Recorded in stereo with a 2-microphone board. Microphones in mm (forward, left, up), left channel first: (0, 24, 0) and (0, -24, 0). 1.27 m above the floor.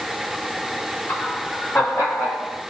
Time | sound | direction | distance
1.1 | laughter | 55° left (ahead or behind) | 2.5 m